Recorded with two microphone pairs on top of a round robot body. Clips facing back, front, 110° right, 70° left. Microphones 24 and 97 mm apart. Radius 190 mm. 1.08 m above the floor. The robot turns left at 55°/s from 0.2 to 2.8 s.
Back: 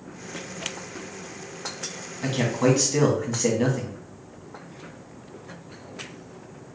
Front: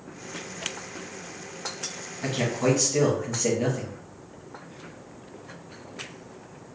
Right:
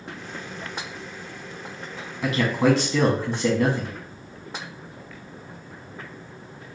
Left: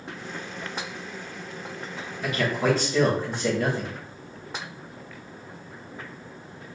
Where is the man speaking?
105° right, 1.7 m; by 3.9 s 135° right, 1.7 m.